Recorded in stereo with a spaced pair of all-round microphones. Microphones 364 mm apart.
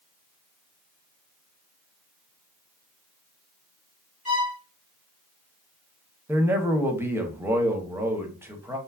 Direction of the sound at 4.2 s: 40° left (ahead or behind).